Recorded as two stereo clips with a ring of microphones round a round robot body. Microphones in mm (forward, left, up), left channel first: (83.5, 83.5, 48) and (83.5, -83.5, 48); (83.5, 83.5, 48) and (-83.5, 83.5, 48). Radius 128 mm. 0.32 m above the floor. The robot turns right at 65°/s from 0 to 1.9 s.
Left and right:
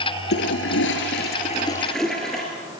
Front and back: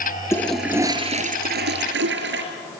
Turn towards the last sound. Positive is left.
turn(degrees=180)